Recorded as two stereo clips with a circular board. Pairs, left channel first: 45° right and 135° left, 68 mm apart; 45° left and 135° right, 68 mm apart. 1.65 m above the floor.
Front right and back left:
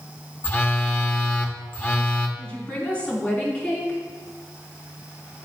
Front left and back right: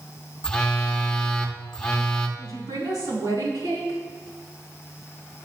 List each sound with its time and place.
0.4 s a phone buzzing: 25° right, 0.9 m
2.4 s a woman speaking: 115° right, 3.5 m